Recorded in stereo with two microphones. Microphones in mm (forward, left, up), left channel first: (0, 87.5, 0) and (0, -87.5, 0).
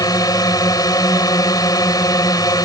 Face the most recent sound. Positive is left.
turn(degrees=20)  # may be behind; listen again after turning